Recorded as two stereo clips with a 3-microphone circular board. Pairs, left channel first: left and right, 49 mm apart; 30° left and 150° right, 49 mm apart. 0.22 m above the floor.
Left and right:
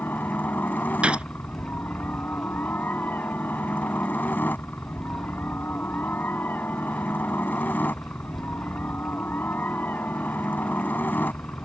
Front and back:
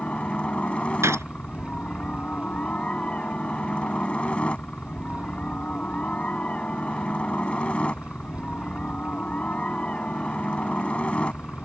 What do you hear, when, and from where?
0.0 s a helicopter: 80° left
1.0 s a gunshot: 155° right